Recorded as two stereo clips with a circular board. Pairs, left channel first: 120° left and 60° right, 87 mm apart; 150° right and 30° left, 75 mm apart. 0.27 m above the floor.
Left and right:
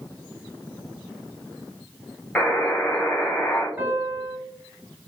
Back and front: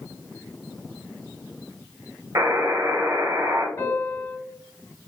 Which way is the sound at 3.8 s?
115° right.